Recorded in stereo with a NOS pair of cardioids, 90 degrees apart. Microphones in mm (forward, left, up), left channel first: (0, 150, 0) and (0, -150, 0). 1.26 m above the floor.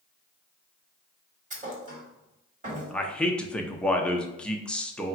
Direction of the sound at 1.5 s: 25° right.